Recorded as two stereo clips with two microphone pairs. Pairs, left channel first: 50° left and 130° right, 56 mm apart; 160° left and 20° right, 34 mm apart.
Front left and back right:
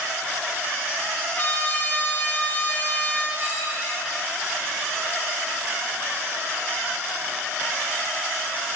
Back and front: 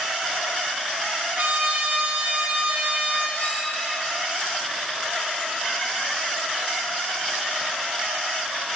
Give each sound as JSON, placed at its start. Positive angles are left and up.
{"t": 1.4, "sound": "a trumpet", "azimuth_deg": 0, "distance_m": 2.0}
{"t": 3.4, "sound": "a clink", "azimuth_deg": -170, "distance_m": 6.5}